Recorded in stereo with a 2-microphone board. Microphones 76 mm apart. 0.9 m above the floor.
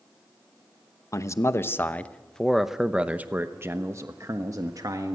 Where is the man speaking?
45° left (ahead or behind), 1.0 m; by 5.2 s 55° right (ahead or behind), 1.6 m.